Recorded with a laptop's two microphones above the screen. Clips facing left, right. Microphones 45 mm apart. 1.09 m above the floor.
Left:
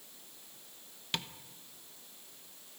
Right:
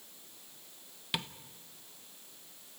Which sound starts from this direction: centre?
Tapping, at 1.1 s.